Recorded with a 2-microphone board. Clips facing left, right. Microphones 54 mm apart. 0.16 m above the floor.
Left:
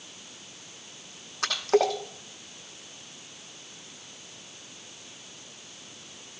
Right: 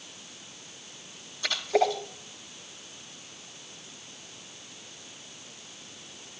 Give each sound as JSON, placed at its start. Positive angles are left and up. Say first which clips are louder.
{"t": 1.4, "sound": "a splash", "louder": "left 2 dB", "side_deg": 80, "distance_m": 9.5}